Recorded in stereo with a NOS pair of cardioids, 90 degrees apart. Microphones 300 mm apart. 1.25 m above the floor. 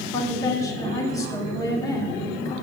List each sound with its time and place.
0.1 s a woman speaking: 10° left, 6.5 m